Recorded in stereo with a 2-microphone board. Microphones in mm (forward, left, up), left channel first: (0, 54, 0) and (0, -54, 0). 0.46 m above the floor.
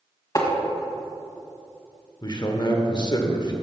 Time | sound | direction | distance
0.3 | tapping | 30° left (ahead or behind) | 1.7 m
2.2 | a man speaking | 40° left (ahead or behind) | 1.0 m